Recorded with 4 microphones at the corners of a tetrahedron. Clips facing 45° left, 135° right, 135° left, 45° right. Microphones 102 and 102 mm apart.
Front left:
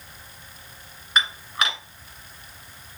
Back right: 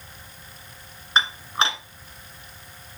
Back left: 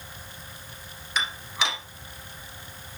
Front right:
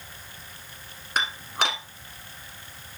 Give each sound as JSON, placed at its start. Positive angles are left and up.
{"t": 1.2, "sound": "dishes clattering", "azimuth_deg": -75, "distance_m": 1.6}